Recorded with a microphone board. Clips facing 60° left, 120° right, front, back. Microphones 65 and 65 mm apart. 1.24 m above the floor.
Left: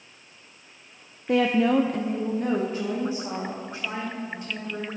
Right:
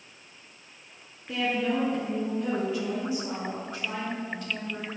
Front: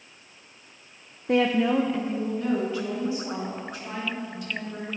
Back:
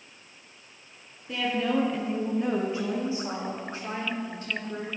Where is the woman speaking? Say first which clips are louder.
Left 7 dB, front 5 dB; 30° left, 0.5 m; by 4.9 s 130° left, 3.5 m.